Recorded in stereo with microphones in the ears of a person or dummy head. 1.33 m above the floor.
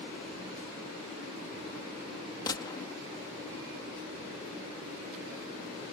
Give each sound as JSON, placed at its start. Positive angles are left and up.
{"t": 2.5, "sound": "a gunshot", "side_deg": 20}